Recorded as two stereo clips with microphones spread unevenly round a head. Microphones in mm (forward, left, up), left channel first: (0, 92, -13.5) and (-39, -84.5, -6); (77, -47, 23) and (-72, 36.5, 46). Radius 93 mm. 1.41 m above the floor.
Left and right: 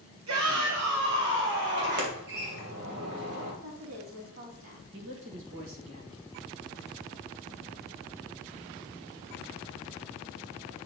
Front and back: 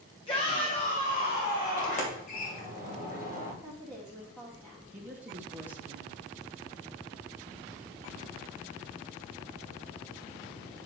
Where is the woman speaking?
110° right, 3.5 m.